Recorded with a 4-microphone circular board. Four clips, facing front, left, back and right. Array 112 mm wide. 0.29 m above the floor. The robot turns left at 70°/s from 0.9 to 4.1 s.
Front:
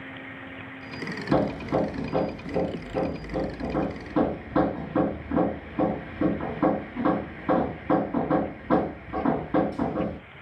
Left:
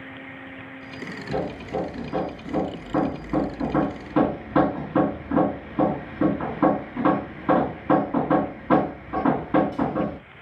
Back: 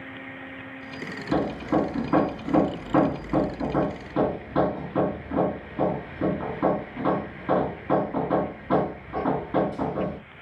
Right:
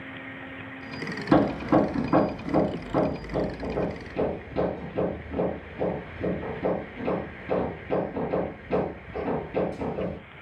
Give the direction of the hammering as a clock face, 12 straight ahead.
3 o'clock.